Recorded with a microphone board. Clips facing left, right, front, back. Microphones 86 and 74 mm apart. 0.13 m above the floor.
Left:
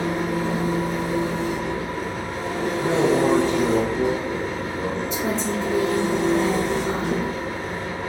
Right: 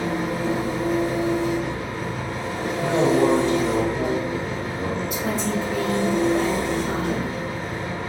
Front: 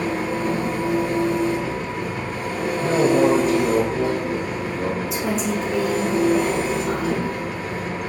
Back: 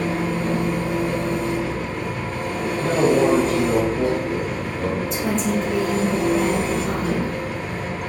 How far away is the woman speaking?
About 1.2 m.